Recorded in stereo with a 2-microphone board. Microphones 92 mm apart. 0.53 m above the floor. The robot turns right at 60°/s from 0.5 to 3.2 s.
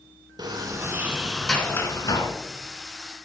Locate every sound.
0.4 s a sliding door: 50° right, 1.1 m; by 2.3 s 60° left, 1.1 m